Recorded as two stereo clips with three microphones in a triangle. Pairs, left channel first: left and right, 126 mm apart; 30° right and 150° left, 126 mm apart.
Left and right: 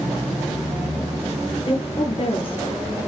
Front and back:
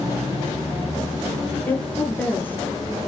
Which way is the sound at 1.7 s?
45° left.